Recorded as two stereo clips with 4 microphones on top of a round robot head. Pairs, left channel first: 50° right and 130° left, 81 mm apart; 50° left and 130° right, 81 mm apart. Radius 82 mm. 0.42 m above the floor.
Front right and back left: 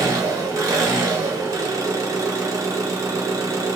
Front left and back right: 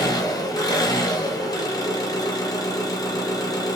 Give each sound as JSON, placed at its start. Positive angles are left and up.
{"t": 0.0, "sound": "an engine running", "azimuth_deg": 85, "distance_m": 1.0}